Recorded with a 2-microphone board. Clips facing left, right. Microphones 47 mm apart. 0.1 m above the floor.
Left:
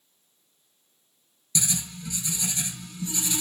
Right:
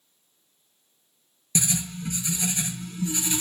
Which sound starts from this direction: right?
Writing, at 1.6 s.